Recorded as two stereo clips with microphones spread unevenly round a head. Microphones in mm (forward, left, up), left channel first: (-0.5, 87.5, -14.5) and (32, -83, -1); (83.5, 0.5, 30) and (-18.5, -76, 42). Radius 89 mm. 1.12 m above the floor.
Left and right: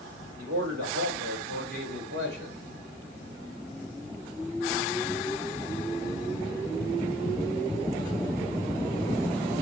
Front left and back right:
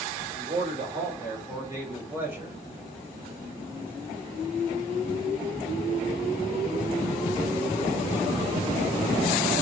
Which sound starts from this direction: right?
A man speaking, at 0.4 s.